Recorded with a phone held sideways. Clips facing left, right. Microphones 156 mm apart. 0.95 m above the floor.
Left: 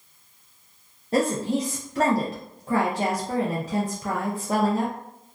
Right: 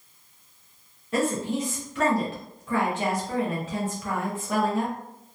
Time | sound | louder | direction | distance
1.1 | a woman speaking | left 3 dB | 40° left (ahead or behind) | 0.6 m